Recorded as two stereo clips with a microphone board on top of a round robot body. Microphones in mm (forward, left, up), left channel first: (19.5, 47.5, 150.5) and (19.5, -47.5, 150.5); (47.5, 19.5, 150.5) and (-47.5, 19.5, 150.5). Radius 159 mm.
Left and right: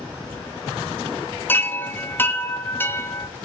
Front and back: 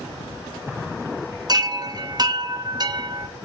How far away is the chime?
About 0.8 m.